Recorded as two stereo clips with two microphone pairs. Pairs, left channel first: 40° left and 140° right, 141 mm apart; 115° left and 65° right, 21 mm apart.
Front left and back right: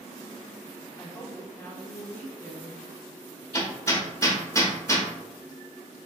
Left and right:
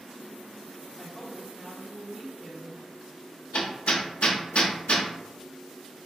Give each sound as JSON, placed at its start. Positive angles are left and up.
{"t": 1.0, "sound": "a woman speaking", "azimuth_deg": -25, "distance_m": 0.9}
{"t": 3.5, "sound": "hammering", "azimuth_deg": 105, "distance_m": 0.6}